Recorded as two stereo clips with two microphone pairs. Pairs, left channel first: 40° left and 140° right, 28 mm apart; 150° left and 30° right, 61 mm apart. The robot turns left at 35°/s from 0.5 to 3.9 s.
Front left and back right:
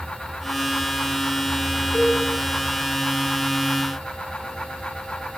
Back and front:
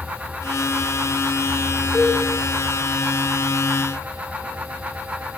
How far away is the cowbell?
About 2.5 m.